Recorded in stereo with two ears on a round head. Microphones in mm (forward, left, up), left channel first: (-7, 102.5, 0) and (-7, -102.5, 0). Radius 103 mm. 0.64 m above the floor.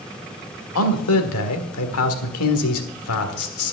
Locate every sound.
0.8 s a man speaking: 70° left (ahead or behind), 1.7 m